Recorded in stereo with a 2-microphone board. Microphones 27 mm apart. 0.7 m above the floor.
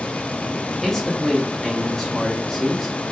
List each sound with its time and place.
0.8 s a man speaking: 20° left (ahead or behind), 1.3 m